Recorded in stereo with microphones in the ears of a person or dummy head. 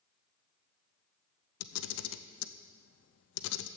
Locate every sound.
1.6 s a camera shutter: 75° left (ahead or behind), 0.6 m